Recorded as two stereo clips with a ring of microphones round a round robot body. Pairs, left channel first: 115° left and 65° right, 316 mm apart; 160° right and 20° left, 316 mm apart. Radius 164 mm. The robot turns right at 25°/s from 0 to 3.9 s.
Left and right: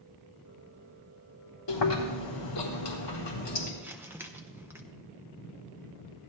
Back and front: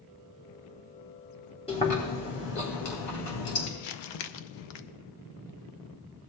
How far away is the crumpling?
About 0.6 m.